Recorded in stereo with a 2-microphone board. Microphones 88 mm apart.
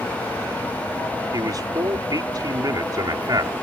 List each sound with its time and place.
1.3 s a man speaking: 45° right (ahead or behind)